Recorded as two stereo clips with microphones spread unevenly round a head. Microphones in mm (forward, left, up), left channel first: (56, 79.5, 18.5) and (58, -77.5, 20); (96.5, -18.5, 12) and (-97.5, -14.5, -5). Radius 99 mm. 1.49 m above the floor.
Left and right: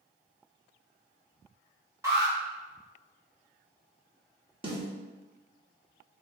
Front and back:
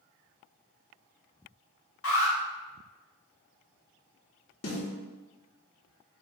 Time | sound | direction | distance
2.0 | an alarm | 20° right | 2.5 m
4.6 | a snare drum | 35° right | 2.5 m